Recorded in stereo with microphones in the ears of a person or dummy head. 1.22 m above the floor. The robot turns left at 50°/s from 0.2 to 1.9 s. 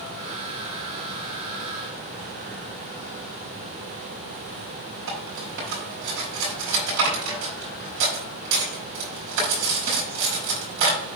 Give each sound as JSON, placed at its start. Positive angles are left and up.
{"t": 5.1, "sound": "cutlery clinking", "side_deg": -75, "distance_m": 5.0}